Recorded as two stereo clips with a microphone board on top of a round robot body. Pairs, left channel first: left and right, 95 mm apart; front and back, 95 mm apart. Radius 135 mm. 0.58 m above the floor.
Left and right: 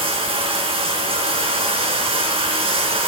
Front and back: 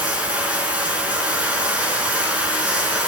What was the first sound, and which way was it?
Running water, 105° right.